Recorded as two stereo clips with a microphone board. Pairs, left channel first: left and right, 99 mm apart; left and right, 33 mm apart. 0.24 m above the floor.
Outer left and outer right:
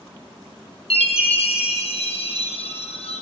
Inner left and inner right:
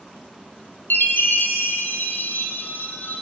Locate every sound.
0.9 s a chime: 80° left, 6 m